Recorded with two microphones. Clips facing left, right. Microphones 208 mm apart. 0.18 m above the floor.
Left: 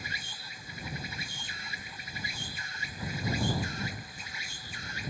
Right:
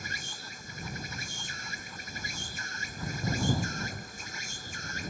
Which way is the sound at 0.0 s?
50° right (ahead or behind).